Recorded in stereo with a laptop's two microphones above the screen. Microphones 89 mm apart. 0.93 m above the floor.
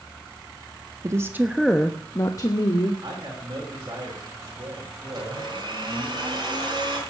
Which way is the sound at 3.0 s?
40° right (ahead or behind).